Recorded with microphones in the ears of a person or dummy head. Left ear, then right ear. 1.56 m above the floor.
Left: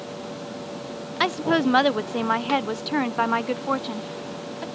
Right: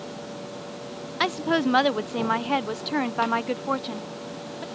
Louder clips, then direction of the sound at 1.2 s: Left 2 dB; 5° left (ahead or behind).